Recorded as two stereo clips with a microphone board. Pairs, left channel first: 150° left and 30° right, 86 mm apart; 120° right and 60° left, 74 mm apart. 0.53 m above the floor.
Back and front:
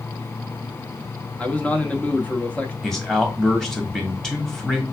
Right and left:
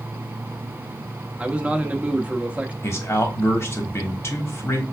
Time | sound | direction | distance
1.4 | a man speaking | 105° left | 0.7 m
2.8 | a man speaking | 130° right | 1.3 m